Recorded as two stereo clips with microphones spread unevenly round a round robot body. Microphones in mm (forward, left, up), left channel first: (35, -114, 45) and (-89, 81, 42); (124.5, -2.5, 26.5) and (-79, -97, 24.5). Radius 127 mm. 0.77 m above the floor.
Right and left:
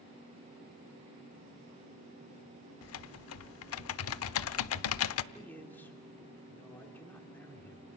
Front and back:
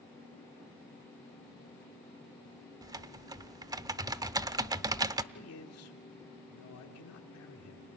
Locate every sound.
2.8 s typing on a keyboard: 80° right, 0.7 m
5.3 s a man speaking: 25° left, 2.5 m